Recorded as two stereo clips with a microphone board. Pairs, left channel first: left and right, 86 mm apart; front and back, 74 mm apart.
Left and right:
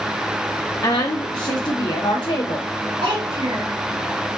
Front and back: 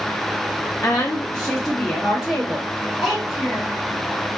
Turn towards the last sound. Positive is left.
turn(degrees=-90)